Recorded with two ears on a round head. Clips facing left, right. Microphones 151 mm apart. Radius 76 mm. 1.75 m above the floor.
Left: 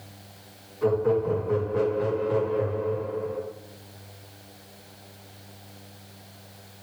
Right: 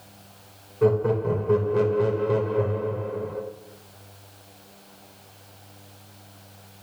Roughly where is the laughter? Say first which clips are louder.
Right 1 dB; right.